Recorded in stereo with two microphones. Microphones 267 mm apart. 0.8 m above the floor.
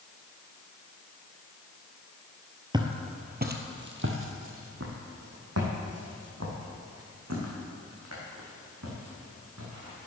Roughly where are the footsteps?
Centre.